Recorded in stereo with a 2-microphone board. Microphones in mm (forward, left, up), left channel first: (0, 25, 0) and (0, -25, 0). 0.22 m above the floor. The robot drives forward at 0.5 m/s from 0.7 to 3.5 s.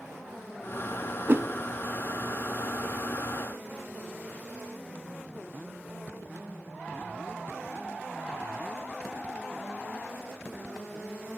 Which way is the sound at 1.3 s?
45° right (ahead or behind).